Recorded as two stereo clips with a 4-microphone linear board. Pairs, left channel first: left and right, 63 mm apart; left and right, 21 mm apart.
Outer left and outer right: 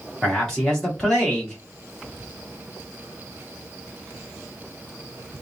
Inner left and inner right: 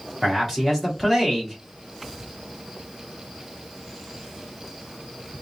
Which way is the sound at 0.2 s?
10° left (ahead or behind).